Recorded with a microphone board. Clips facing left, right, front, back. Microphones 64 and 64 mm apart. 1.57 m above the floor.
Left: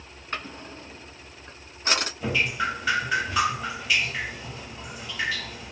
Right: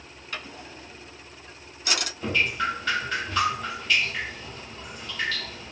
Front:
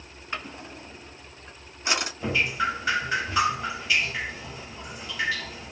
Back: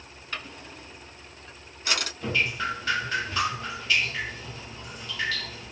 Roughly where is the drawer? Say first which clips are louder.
Left 3 dB, front 3 dB; ahead left.